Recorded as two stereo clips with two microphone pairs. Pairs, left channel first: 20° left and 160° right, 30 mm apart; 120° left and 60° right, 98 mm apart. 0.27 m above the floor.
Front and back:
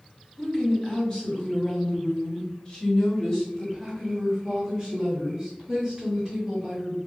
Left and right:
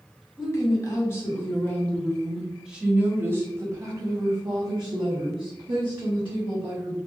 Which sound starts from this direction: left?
A woman speaking, at 0.4 s.